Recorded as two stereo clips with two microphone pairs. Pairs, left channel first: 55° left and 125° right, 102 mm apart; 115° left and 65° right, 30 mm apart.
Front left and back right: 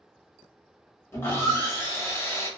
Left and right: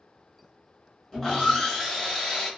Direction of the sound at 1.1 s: 65° left.